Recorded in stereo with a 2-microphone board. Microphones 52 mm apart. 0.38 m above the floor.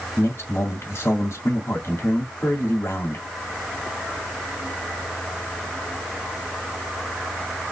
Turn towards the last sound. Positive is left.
turn(degrees=60)  # may be behind; listen again after turning